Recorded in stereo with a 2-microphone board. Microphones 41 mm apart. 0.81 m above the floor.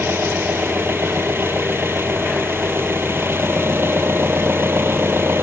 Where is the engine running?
65° right (ahead or behind).